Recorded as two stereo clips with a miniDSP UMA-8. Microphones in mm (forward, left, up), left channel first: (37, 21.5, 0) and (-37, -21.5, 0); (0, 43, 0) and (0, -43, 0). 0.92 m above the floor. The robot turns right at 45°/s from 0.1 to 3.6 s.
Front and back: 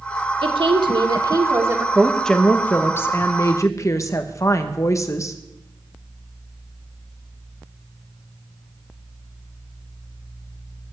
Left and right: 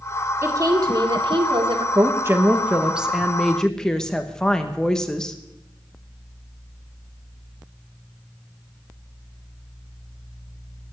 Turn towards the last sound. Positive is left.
turn(degrees=10)